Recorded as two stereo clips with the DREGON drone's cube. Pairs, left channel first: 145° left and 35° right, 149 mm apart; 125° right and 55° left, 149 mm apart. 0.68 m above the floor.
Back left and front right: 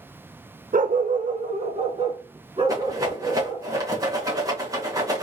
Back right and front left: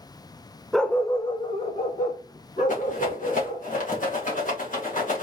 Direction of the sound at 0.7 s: 35° right.